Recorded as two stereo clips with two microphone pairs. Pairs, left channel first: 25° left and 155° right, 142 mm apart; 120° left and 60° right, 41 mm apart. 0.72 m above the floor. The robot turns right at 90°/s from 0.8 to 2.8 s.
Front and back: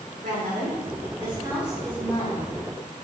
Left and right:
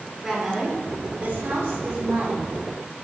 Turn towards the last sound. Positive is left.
turn(degrees=30)